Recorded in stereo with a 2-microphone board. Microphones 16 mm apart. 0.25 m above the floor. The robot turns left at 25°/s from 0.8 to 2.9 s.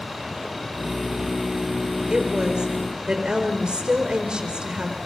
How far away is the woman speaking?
About 4 m.